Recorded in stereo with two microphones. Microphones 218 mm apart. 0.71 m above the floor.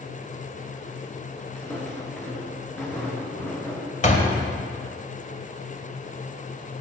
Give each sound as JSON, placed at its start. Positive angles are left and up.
{"t": 1.6, "sound": "footsteps", "side_deg": 5, "distance_m": 3.5}
{"t": 4.0, "sound": "a door slam", "side_deg": 35, "distance_m": 2.0}